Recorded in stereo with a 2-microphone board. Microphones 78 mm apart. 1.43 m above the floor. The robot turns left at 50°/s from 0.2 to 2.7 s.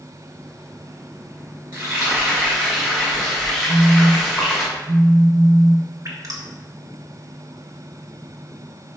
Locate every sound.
1.7 s frying: 125° right, 3 m; by 4.7 s 175° right, 3 m
3.7 s a phone buzzing: 15° right (ahead or behind), 1.3 m
6.0 s dripping: 50° right (ahead or behind), 1.2 m